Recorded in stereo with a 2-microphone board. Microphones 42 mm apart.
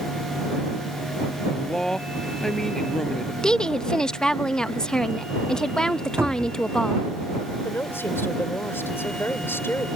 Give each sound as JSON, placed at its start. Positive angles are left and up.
{"t": 1.5, "sound": "a man speaking", "side_deg": 15}
{"t": 3.4, "sound": "a woman speaking", "side_deg": 20}
{"t": 6.2, "sound": "a cupboard door", "side_deg": -70}
{"t": 7.7, "sound": "a woman speaking", "side_deg": 75}